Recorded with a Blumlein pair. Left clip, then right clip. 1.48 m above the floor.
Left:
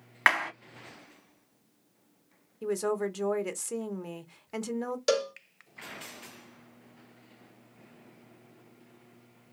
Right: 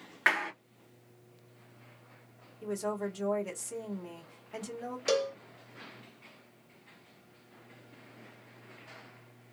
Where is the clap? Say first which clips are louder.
Left 3 dB; 65° left, 1.5 m.